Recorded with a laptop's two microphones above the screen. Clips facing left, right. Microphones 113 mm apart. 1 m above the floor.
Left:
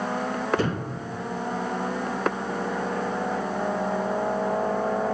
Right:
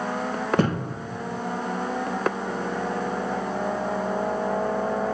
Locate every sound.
0.6 s a thud: 55° right (ahead or behind), 1.7 m